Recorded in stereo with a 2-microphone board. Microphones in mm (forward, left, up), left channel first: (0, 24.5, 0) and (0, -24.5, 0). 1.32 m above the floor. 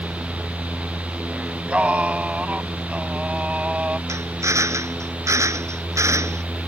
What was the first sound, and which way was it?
Singing, 25° right (ahead or behind).